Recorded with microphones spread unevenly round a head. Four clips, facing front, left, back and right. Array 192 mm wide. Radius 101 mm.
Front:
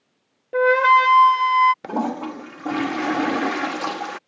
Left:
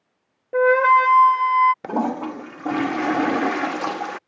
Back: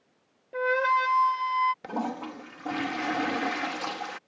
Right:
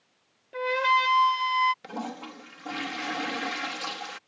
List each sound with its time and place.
0.5 s a flute: 45° left
1.8 s a toilet flushing: 55° left